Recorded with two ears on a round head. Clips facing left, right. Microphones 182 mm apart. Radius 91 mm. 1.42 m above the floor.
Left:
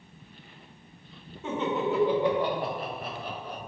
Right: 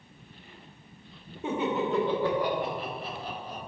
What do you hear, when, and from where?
1.4 s laughter: 15° right (ahead or behind), 0.8 m; by 3.6 s 55° left (ahead or behind), 1.3 m